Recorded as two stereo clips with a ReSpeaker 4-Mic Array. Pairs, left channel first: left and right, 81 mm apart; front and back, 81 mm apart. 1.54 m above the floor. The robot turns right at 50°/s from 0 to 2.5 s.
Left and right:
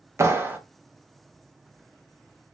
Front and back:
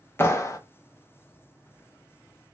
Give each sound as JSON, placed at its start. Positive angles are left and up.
{"t": 0.2, "sound": "a clap", "azimuth_deg": -50, "distance_m": 0.6}